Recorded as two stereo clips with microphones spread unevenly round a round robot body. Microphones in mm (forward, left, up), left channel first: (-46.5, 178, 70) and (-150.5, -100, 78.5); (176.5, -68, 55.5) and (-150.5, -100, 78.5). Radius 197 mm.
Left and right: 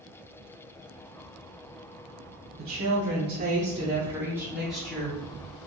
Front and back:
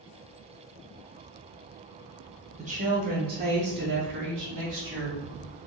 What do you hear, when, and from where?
2.6 s a woman speaking: 110° right, 1.1 m; by 5.2 s 155° left, 1.8 m